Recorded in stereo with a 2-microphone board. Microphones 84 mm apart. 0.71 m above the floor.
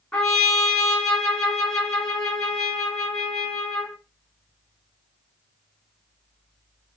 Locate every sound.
0.1 s a trumpet: 10° left (ahead or behind), 2 m